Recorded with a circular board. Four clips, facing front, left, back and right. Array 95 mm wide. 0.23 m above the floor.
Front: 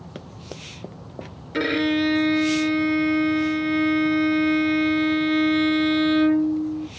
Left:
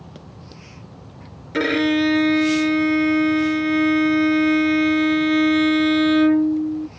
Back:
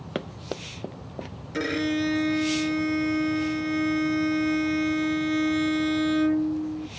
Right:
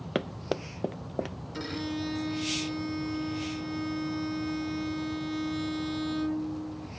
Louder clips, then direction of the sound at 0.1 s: Right 10 dB, back 8 dB; 120° right.